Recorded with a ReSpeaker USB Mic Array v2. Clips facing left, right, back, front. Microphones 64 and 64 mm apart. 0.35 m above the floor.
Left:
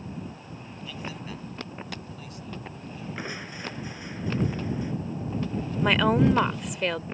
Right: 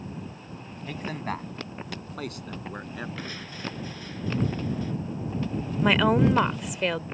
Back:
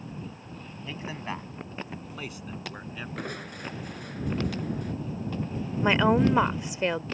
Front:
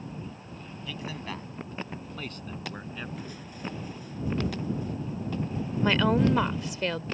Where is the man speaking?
125° right; by 3.1 s 90° right.